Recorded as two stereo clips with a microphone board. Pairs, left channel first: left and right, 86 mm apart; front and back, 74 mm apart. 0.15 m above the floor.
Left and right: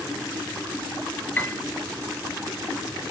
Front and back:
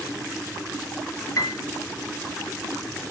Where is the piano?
25° left, 0.9 m.